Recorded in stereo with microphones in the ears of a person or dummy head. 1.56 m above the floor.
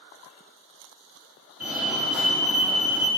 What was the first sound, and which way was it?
A fire alarm, 5° right (ahead or behind).